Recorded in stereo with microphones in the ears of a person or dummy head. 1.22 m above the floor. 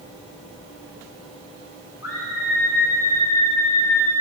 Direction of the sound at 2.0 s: 90° left.